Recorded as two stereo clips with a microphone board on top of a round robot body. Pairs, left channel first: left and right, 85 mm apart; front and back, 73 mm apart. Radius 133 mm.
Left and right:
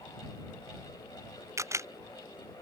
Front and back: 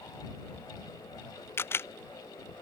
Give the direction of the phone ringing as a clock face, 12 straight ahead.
No phone ringing in this recording.